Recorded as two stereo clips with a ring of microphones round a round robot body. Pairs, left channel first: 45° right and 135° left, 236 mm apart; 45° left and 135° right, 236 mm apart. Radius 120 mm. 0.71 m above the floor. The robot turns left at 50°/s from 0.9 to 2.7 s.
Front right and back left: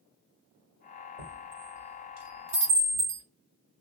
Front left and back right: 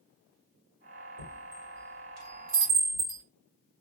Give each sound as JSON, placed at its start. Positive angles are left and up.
{"t": 1.2, "sound": "a chime", "azimuth_deg": -110, "distance_m": 1.6}